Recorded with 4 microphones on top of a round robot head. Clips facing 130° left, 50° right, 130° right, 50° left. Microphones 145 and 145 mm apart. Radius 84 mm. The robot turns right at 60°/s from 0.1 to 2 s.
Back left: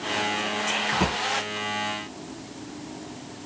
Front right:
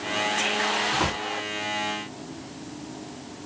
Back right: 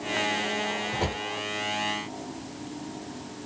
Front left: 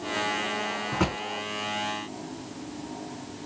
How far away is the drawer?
About 2 m.